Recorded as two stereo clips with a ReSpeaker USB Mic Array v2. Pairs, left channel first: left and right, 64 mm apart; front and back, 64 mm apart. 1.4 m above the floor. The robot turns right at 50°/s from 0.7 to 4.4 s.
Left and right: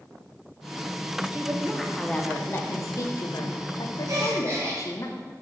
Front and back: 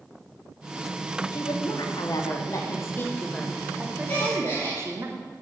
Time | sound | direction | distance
1.3 | a woman speaking | 25° right | 0.8 m
4.1 | a gasp | 65° right | 2 m